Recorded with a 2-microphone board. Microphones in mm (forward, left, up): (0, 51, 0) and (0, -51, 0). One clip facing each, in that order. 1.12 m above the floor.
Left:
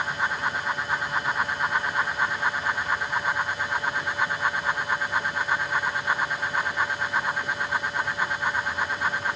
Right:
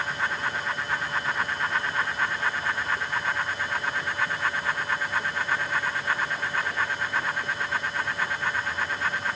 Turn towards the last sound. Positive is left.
No sound to turn to.